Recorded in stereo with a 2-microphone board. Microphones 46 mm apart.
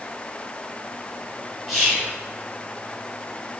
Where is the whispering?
5° right (ahead or behind), 1.4 m.